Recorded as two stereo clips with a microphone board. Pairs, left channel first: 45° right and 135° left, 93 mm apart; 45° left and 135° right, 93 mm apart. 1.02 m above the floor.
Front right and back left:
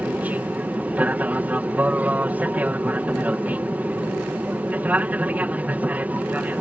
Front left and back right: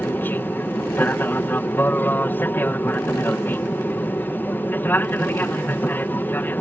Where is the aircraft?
85° left.